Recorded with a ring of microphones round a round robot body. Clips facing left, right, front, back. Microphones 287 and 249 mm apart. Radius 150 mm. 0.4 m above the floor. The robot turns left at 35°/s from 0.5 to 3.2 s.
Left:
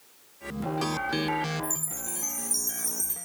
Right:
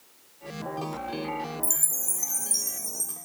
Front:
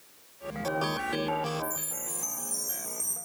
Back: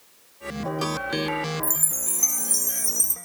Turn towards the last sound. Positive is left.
turn(degrees=160)